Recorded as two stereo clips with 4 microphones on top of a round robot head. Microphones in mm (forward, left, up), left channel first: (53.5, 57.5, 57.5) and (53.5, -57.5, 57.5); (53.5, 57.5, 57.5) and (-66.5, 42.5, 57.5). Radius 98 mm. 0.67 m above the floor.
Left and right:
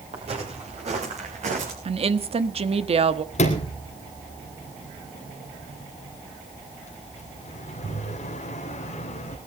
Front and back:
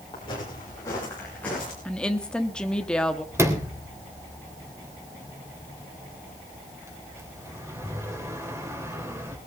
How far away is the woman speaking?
About 1.2 m.